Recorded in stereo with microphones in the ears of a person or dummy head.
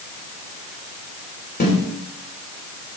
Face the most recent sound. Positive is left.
turn(degrees=45)  # may be behind; listen again after turning